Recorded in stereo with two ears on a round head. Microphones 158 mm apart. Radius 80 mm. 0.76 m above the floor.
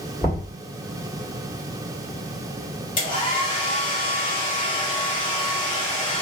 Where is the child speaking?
No child speaking in this recording.